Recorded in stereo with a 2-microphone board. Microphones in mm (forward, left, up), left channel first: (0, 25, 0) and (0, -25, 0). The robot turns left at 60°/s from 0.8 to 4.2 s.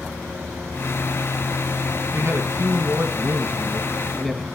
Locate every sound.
2.1 s a man speaking: 60° right, 2 m; by 4.5 s 175° left, 2 m